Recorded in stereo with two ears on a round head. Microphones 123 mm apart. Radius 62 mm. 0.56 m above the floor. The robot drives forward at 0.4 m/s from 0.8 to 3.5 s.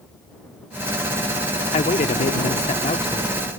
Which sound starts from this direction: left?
A man speaking, at 1.7 s.